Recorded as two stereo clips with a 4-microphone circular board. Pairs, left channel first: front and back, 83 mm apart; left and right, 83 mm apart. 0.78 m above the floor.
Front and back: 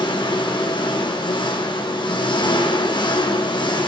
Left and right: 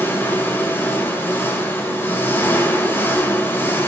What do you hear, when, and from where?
0.0 s an engine running: 25° left, 2.5 m